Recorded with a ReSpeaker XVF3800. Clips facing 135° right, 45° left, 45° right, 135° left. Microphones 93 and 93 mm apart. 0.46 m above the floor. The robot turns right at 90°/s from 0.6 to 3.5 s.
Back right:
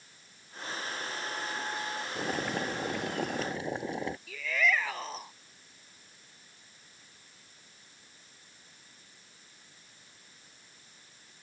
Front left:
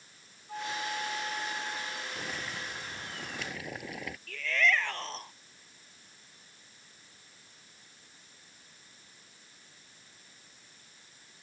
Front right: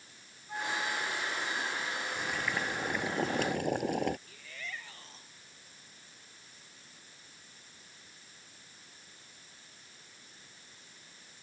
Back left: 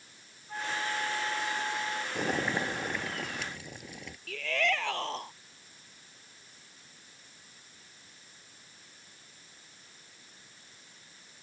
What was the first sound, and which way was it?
A flute, 45° left.